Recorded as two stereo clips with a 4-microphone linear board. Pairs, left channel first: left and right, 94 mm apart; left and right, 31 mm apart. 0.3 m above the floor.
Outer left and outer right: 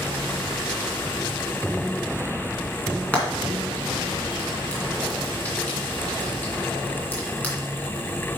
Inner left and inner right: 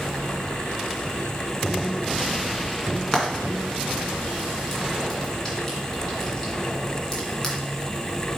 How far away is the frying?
About 2.5 m.